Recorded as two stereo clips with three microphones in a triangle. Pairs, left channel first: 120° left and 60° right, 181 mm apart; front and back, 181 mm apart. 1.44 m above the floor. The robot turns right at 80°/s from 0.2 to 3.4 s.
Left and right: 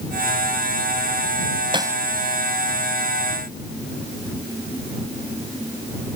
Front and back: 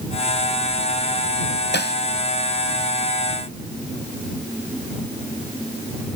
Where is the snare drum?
Straight ahead; by 2.0 s 20° left.